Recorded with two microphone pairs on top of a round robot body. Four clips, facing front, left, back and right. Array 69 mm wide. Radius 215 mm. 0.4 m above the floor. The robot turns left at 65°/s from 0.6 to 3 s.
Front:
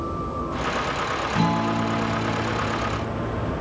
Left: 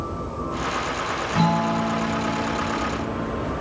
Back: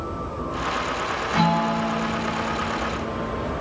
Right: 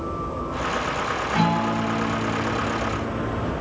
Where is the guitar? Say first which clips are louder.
Left 1 dB, back 3 dB; 145° right, 1.5 m; by 3.5 s 105° left, 1.5 m.